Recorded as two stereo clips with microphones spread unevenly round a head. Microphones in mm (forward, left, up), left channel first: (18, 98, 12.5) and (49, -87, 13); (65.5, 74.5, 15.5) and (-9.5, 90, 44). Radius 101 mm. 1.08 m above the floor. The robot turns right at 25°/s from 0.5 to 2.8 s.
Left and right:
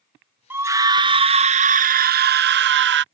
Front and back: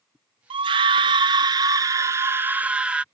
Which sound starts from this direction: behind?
A scream, at 0.5 s.